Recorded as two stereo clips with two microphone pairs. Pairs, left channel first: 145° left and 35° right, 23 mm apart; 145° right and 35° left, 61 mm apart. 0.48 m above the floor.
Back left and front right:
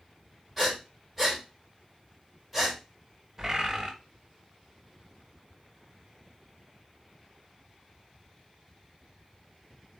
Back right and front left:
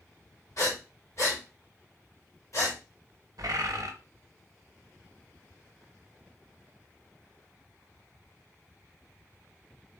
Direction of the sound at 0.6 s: 120° right.